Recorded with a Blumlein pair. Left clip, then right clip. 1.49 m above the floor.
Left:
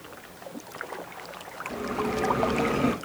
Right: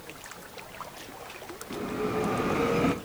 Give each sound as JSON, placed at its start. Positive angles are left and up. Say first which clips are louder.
{"t": 1.7, "sound": "a bell", "louder": "left 1 dB", "azimuth_deg": -5, "distance_m": 0.9}